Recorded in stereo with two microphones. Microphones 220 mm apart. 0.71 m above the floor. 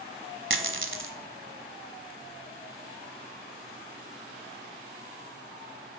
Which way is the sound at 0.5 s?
65° right (ahead or behind).